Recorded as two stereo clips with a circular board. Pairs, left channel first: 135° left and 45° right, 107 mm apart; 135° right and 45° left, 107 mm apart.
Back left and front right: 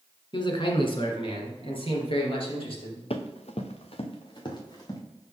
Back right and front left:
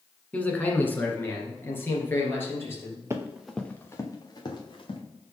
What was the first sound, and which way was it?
A man speaking, 150° left.